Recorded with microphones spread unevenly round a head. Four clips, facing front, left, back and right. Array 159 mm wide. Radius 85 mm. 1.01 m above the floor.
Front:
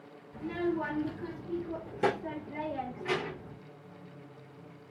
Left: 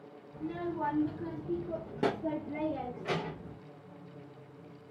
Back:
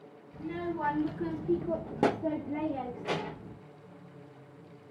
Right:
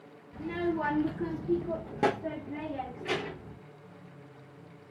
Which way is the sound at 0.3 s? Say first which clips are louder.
Right 5 dB, front 3 dB; 70° right.